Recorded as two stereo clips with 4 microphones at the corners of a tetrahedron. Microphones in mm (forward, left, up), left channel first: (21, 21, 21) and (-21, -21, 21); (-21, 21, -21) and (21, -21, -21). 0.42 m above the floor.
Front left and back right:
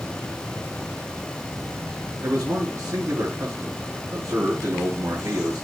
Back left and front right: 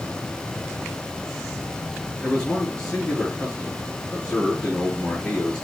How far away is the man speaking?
About 6 m.